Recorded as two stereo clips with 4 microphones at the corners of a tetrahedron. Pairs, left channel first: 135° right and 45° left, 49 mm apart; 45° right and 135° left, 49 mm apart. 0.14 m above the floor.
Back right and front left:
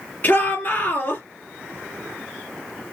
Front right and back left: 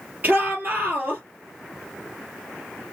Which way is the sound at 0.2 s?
Straight behind.